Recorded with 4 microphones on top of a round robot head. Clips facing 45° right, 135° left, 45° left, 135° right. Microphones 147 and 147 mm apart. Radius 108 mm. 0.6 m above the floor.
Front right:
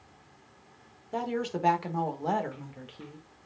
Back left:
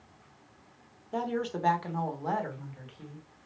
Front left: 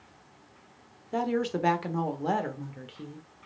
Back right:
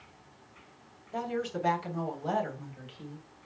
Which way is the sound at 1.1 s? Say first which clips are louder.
Even, front left 5 dB; 45° left.